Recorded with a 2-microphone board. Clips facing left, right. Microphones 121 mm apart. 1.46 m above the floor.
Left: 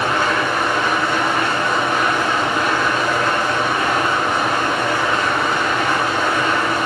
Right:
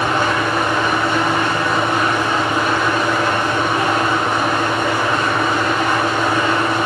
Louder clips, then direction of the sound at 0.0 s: Right 1 dB; 20° right (ahead or behind).